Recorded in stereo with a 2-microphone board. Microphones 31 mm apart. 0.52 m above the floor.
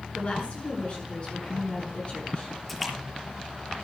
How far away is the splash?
About 6.5 m.